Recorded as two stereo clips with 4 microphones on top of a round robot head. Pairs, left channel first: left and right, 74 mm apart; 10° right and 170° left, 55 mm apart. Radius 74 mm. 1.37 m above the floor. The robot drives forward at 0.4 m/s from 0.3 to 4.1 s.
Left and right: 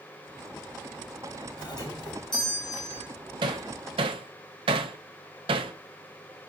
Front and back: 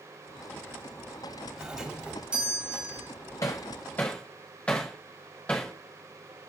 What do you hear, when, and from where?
1.6 s a doorbell: 95° left, 3.5 m; by 3.1 s 105° left, 3.5 m
3.4 s hammering: 60° right, 0.7 m; by 5.7 s 85° right, 0.6 m